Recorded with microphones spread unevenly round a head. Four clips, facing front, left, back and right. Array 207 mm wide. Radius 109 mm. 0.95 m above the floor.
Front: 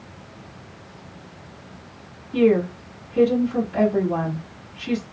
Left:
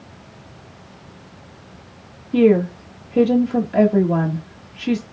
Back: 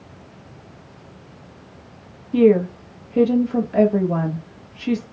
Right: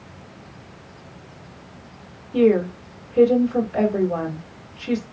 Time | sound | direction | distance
2.3 | a woman speaking | 105° left | 1.3 m